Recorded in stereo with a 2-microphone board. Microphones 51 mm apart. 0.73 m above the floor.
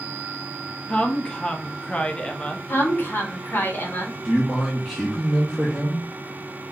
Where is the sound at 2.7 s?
40° left (ahead or behind), 1.0 m.